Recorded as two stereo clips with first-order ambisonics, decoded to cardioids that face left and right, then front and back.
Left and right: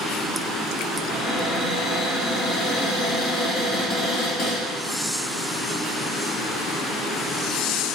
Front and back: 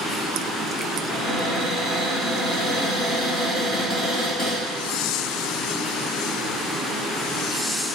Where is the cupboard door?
70° left, 1.8 m.